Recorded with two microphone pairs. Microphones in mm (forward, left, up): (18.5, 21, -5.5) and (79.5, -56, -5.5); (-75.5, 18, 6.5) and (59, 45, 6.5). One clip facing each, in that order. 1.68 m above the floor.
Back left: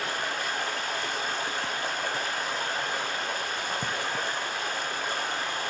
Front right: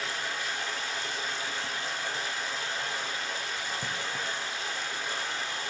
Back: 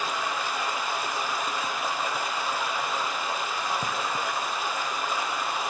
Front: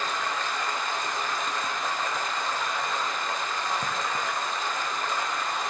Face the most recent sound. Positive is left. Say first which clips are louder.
# back left 4 dB, even
turn(degrees=115)